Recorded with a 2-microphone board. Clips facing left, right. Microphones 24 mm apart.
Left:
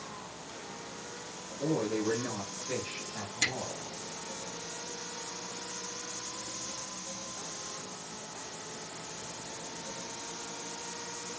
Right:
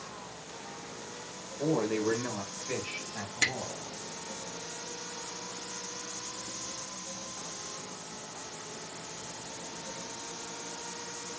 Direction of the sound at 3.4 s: 30° right (ahead or behind).